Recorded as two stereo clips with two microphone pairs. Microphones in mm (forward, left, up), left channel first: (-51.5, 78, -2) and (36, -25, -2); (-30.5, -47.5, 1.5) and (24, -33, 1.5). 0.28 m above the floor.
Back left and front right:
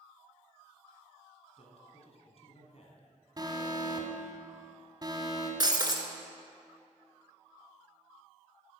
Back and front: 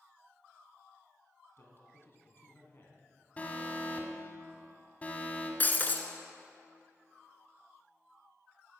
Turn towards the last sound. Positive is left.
turn(degrees=-105)